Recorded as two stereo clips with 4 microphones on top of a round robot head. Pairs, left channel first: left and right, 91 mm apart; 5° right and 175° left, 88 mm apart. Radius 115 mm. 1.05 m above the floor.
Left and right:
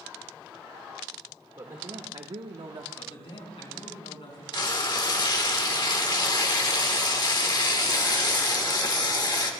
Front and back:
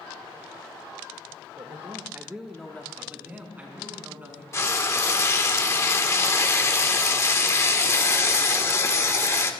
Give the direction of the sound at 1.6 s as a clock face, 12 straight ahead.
5 o'clock.